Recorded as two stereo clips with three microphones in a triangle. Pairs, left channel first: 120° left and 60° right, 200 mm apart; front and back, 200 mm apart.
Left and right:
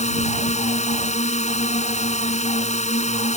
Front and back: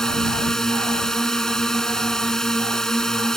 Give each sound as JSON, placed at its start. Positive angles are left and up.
{"t": 0.0, "sound": "a drone", "azimuth_deg": 85}